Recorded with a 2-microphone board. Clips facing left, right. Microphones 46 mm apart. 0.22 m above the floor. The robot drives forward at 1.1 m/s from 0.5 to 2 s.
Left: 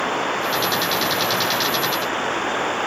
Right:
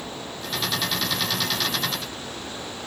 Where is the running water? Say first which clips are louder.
Left 13 dB; 60° left (ahead or behind); by 2.9 s 55° left (ahead or behind).